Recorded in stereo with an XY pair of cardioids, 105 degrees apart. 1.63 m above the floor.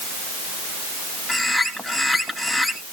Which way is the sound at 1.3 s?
5° right.